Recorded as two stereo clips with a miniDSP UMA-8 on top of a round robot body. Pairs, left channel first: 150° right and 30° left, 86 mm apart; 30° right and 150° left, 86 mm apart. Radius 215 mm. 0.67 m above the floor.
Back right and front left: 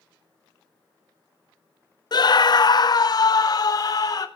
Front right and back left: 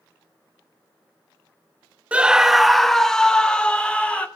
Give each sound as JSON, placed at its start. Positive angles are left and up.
{"t": 2.1, "sound": "a scream", "azimuth_deg": -140, "distance_m": 0.8}